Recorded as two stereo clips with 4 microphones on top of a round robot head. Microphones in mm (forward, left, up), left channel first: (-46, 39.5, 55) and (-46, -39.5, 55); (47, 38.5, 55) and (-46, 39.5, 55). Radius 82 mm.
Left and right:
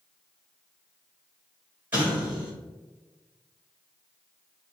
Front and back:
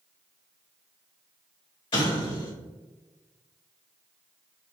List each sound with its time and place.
1.9 s an explosion: 20° right, 1.7 m